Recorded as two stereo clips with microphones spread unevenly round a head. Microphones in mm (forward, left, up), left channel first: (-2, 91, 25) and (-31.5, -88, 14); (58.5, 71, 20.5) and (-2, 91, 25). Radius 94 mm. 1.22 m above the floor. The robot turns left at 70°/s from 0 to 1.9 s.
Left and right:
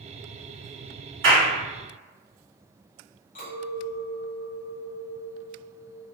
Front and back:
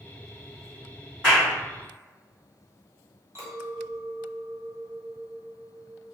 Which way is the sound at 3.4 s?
125° left.